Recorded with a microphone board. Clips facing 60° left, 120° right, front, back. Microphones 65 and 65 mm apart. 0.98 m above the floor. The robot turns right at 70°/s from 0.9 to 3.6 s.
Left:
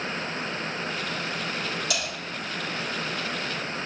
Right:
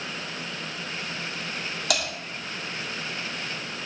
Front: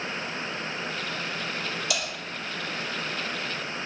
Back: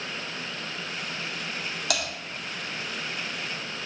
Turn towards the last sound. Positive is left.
turn(degrees=-30)